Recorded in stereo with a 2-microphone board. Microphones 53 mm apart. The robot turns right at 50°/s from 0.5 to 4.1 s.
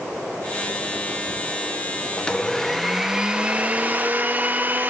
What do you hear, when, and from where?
2.2 s a blender: 150° left, 0.8 m; by 4.9 s 115° right, 0.8 m